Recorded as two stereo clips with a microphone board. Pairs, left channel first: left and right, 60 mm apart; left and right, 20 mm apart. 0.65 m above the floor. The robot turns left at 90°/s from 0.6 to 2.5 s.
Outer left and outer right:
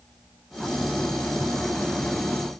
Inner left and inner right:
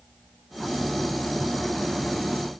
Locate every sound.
Only background noise.